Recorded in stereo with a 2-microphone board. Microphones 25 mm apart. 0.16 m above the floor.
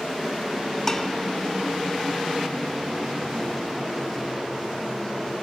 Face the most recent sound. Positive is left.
turn(degrees=15)  # may be behind; listen again after turning